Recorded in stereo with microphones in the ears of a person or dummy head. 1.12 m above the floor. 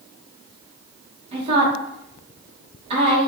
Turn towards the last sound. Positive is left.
turn(degrees=-30)  # may be behind; listen again after turning